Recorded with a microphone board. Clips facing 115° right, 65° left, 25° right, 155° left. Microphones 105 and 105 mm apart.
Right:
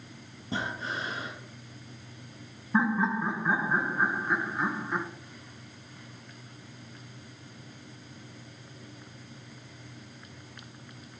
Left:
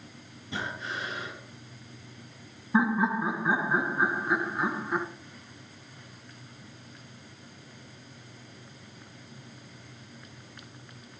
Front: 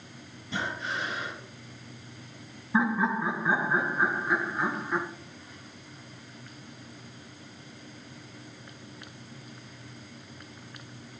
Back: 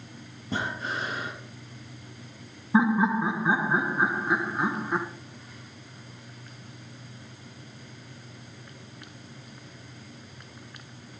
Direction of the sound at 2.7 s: 140° left.